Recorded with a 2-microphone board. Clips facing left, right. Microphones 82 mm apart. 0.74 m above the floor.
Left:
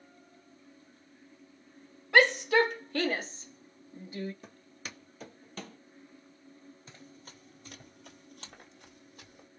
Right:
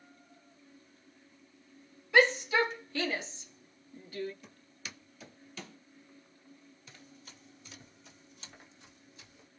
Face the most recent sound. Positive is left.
turn(degrees=50)  # may be behind; listen again after turning